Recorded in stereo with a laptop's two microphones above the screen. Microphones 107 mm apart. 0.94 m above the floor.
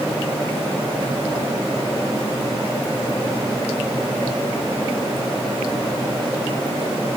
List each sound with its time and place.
Only background noise.